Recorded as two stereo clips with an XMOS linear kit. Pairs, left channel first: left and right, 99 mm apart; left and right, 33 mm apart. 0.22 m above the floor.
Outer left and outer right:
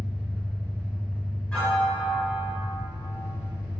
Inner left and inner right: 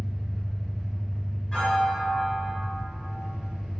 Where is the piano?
5° left (ahead or behind), 1.3 m.